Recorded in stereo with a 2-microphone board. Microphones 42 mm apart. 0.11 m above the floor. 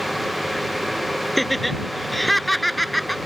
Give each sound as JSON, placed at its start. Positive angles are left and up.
{"t": 1.4, "sound": "laughter", "side_deg": 0}